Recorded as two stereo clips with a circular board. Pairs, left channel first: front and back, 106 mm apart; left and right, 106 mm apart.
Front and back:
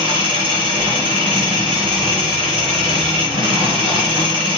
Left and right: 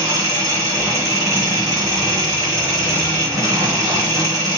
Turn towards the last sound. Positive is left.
turn(degrees=-145)